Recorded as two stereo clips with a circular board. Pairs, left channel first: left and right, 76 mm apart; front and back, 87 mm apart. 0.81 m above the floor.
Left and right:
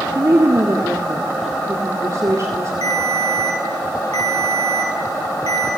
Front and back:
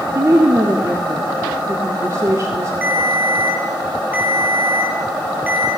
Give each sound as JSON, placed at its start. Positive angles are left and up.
{"t": 0.1, "sound": "a woman speaking", "azimuth_deg": -130, "distance_m": 2.0}
{"t": 2.8, "sound": "a ringtone", "azimuth_deg": 110, "distance_m": 8.0}